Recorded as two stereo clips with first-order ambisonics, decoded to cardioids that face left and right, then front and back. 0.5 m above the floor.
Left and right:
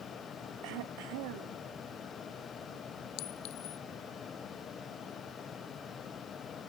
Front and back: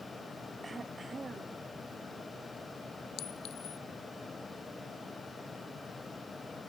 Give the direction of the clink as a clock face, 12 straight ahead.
10 o'clock.